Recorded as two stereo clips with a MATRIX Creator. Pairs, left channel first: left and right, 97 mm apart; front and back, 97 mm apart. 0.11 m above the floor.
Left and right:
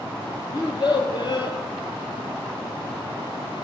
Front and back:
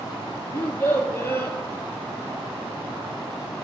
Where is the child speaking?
60° left, 1.7 m.